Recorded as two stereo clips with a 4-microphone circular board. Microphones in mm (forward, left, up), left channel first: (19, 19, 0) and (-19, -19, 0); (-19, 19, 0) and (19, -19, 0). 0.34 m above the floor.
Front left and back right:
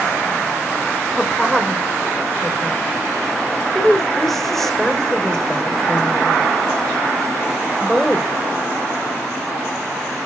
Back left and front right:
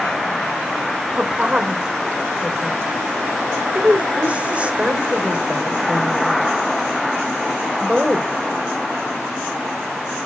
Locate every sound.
1.1 s a woman speaking: 35° right, 1.2 m